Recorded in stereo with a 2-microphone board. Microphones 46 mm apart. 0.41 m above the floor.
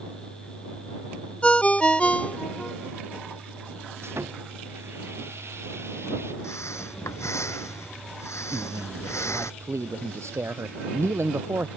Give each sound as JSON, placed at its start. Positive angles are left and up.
{"t": 1.4, "sound": "a ringtone", "side_deg": 25}
{"t": 4.0, "sound": "sawing", "side_deg": -65}
{"t": 6.4, "sound": "breathing", "side_deg": 85}
{"t": 8.5, "sound": "a man speaking", "side_deg": -75}